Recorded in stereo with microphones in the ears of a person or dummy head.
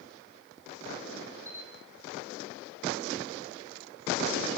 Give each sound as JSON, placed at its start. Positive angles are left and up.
{"t": 1.4, "sound": "a camera shutter", "side_deg": -10, "distance_m": 1.4}